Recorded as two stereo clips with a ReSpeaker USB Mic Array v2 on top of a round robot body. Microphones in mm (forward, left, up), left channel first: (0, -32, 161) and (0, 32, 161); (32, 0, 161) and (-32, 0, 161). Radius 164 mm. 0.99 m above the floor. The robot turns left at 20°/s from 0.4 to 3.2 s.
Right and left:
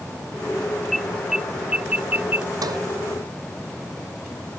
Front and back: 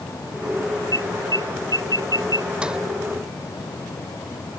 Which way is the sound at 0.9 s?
Straight behind.